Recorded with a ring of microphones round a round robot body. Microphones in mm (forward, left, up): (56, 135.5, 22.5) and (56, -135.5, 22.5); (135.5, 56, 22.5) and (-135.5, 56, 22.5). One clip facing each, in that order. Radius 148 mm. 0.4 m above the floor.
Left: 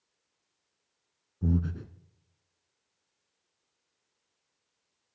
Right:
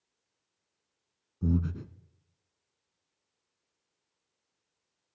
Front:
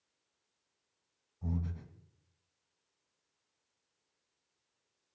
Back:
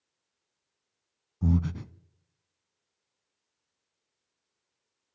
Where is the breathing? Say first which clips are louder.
Even, back 11 dB; 170° right, 0.7 m.